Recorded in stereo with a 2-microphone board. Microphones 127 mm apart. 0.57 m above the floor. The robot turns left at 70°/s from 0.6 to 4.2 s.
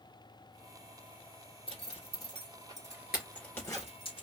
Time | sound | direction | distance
1.7 | a zipper | 55° right (ahead or behind) | 2.5 m